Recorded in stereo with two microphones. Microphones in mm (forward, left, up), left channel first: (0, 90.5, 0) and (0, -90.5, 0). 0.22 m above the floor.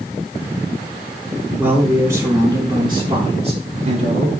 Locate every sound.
1.6 s a man speaking: 10° right (ahead or behind), 4 m; by 4.3 s 45° right (ahead or behind), 4 m